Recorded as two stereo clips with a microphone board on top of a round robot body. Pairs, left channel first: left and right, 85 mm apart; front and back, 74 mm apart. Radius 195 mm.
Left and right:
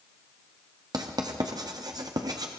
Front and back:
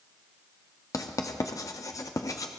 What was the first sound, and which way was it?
Writing, 45° right.